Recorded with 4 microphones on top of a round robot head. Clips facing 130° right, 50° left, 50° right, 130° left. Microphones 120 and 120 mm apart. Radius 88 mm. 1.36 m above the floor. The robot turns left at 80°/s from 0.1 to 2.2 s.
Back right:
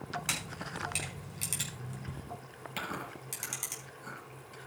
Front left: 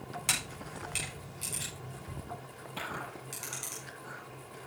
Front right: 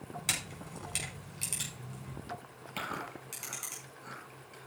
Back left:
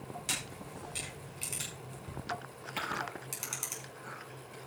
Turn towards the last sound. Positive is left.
turn(degrees=-120)